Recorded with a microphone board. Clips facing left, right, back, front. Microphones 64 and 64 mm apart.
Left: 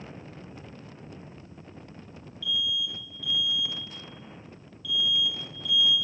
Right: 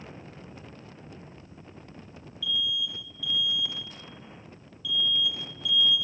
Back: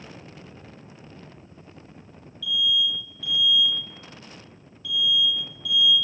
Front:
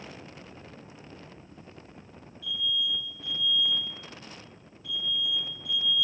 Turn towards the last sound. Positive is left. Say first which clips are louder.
# even, back 6 dB
turn(degrees=-5)